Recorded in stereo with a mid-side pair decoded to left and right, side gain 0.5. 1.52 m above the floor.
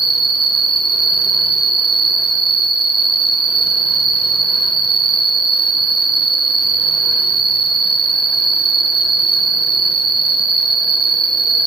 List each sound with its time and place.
0.0 s an insect: 65° right, 0.8 m